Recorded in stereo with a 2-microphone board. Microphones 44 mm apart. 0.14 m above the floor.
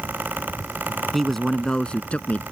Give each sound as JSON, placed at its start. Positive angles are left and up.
{"t": 1.1, "sound": "a man speaking", "side_deg": 0}